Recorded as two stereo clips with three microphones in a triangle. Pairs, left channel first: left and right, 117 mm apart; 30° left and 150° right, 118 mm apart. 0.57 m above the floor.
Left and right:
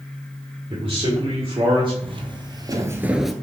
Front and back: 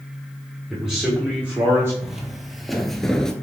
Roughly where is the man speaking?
Ahead right.